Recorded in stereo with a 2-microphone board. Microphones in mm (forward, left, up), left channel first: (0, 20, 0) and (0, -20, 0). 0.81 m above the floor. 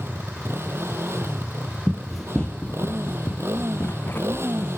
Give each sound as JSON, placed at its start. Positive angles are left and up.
{"t": 0.0, "sound": "a motorcycle", "side_deg": -85}
{"t": 1.9, "sound": "running footsteps", "side_deg": -20}